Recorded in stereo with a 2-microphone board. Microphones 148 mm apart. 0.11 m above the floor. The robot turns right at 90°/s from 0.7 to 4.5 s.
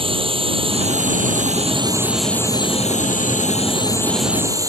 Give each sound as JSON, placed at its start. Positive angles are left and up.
{"t": 0.0, "sound": "a drone", "azimuth_deg": -135}